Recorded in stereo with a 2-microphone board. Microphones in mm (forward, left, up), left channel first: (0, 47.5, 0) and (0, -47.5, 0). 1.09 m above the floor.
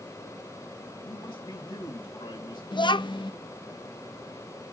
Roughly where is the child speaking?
Left.